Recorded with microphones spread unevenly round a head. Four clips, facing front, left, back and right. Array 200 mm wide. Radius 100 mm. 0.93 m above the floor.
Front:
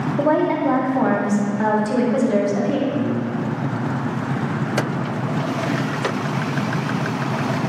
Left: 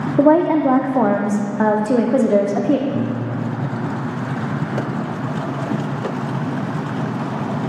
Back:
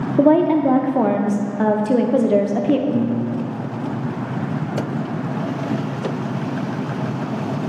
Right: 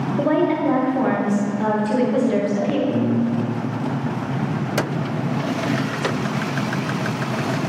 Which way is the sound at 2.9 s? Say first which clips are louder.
Right 3 dB, back 2 dB; 115° right.